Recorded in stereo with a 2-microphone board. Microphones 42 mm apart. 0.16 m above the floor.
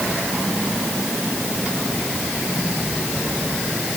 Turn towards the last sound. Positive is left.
No sound to turn to.